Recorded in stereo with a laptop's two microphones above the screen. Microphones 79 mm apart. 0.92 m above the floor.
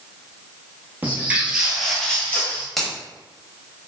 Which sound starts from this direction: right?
Footsteps, at 1.0 s.